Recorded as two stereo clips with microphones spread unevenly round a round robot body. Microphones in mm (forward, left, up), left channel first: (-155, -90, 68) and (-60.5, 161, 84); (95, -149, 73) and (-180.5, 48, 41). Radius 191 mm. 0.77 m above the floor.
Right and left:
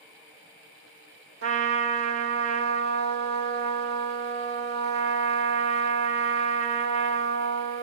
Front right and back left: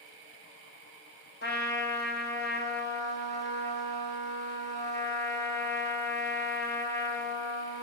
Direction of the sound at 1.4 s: 25° left.